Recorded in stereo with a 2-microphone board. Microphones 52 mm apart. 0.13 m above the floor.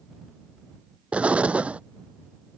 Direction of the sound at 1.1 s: 25° right (ahead or behind).